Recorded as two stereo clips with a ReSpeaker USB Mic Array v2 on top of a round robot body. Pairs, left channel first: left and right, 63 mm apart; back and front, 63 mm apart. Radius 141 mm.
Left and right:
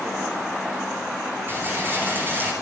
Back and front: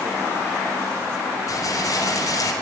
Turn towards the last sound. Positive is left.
turn(degrees=-150)